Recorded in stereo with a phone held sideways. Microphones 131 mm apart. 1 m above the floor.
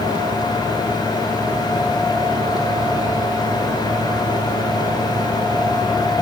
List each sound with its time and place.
0.0 s a fan: 35° left (ahead or behind), 3 m